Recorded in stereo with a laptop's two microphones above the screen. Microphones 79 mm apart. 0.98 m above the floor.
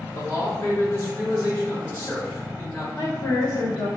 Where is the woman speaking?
65° left (ahead or behind), 1.8 m.